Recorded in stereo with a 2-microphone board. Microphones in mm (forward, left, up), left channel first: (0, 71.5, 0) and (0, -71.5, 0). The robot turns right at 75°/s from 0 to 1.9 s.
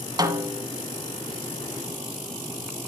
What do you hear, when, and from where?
0.2 s a snare drum: 30° right, 1.1 m; by 0.7 s 5° left, 1.1 m